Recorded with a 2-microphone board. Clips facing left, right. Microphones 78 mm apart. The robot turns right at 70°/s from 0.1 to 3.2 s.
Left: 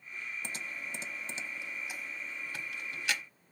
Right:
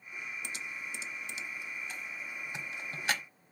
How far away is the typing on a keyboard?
About 0.8 m.